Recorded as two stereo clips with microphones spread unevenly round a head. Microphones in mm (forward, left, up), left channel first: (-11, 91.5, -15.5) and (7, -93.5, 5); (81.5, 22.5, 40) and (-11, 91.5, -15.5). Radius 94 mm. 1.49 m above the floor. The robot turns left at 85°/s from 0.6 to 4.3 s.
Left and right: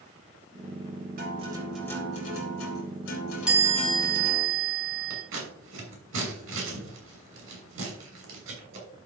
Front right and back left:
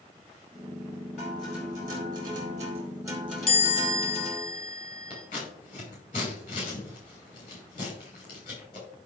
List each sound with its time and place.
1.2 s a guitar: 125° right, 4.5 m; by 4.5 s 30° right, 4.5 m
3.5 s a chime: straight ahead, 4 m; by 5.2 s 70° right, 4 m
5.1 s scissors: 85° right, 5.5 m